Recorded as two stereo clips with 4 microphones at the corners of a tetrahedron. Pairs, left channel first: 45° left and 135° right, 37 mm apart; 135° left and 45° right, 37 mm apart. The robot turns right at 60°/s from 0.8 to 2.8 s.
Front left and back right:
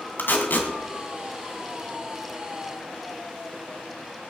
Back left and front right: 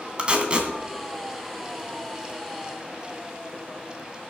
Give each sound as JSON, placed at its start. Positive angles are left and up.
{"t": 0.2, "sound": "tape being pulled", "azimuth_deg": 15, "distance_m": 2.5}